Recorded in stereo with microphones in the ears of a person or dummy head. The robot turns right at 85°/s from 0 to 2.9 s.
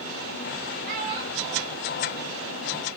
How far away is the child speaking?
About 3.5 m.